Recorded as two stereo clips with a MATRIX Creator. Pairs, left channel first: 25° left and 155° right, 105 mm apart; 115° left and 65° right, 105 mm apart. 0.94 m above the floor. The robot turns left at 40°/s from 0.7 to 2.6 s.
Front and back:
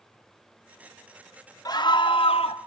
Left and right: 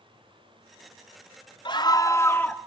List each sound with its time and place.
1.6 s a scream: 75° left, 2 m; by 2.6 s 35° left, 2 m